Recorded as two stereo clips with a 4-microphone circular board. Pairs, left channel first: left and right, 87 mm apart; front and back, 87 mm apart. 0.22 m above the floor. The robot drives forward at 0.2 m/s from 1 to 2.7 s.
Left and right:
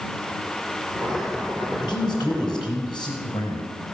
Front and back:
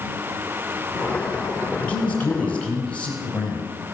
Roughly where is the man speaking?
Left.